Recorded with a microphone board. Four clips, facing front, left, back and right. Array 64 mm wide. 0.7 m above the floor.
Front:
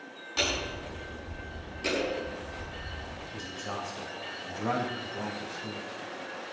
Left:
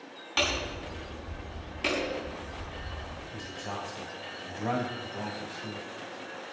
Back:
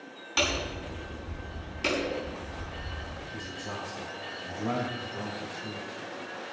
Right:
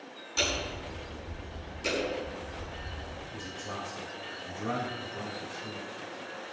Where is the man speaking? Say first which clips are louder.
Left 2 dB, front 2 dB; 65° left, 5.5 m.